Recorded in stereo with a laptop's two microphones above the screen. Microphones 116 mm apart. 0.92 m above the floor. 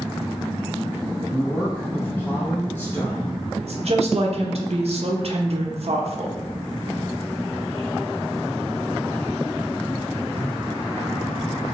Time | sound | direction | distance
1.3 | a woman speaking | 15° left (ahead or behind) | 0.6 m
3.6 | a woman speaking | 65° right (ahead or behind) | 0.7 m